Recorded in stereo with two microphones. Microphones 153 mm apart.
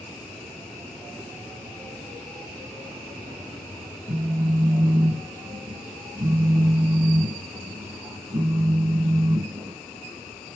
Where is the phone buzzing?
30° right (ahead or behind), 1.5 m.